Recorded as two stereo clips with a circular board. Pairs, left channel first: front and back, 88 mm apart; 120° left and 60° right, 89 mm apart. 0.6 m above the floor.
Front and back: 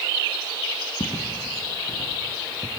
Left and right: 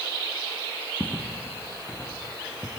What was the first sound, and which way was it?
Footsteps, 25° left.